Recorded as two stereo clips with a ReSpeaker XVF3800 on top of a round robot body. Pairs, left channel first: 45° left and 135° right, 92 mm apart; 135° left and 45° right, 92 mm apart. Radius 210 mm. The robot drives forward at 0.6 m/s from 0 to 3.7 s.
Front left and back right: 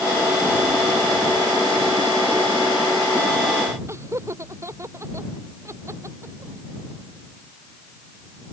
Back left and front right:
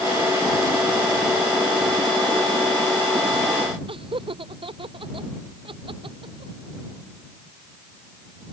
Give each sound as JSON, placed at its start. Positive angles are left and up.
{"t": 3.9, "sound": "laughter", "azimuth_deg": -75}